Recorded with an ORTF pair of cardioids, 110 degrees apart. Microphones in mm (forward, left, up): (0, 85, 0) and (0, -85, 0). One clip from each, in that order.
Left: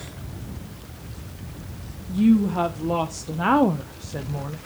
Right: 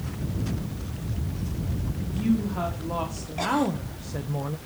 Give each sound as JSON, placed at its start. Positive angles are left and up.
{"t": 2.1, "sound": "a woman speaking", "azimuth_deg": 70, "distance_m": 1.8}